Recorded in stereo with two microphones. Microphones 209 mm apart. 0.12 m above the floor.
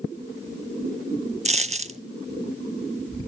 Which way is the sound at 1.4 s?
35° right (ahead or behind).